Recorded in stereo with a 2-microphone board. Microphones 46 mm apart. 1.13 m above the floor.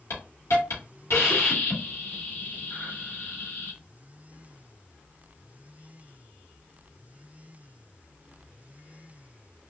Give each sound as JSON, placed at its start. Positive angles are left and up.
{"t": 0.1, "sound": "a hiss", "side_deg": 70, "distance_m": 1.4}